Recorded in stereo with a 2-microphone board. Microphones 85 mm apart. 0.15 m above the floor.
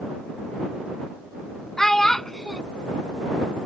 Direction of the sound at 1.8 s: 5° left (ahead or behind).